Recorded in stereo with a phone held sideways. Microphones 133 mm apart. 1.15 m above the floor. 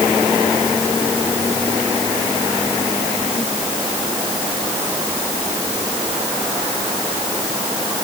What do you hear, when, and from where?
Only background noise.